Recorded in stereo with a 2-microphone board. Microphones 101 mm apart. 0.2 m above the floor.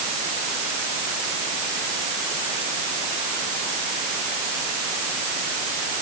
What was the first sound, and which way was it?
Only background noise.